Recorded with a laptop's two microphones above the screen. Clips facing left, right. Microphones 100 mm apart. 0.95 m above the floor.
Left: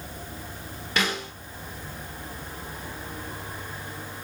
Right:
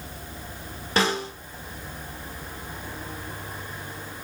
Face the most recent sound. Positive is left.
turn(degrees=-35)  # may be behind; listen again after turning